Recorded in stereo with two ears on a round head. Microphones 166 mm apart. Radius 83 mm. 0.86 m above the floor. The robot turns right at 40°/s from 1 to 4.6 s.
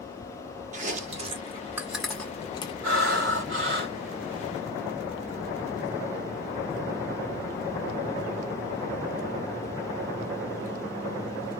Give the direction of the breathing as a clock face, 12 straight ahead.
2 o'clock.